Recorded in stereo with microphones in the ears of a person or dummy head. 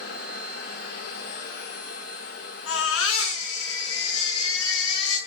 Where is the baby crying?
80° left, 8 m.